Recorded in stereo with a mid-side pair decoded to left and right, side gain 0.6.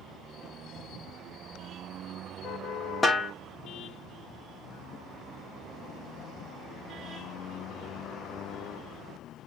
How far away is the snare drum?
About 1.1 m.